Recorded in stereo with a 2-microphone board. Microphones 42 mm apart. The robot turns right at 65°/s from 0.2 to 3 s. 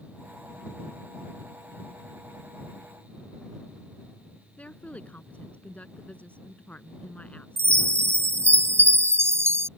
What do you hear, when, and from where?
4.6 s a woman speaking: 30° left (ahead or behind)
7.6 s a chime: 75° right (ahead or behind)